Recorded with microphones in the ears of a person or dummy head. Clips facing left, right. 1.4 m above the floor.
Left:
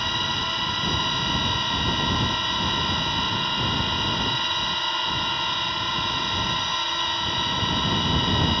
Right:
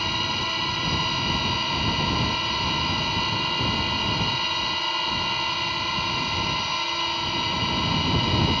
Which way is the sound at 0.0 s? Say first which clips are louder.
Right 1 dB; centre (ahead or behind).